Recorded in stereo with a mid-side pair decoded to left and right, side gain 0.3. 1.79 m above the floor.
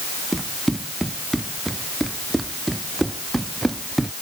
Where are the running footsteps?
15° right; by 4.1 s 20° right.